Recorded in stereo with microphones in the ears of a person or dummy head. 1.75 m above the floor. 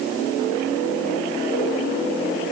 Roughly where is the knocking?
No knocking in this recording.